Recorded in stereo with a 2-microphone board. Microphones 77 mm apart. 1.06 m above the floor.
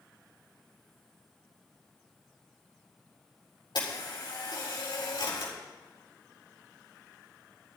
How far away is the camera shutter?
About 4 m.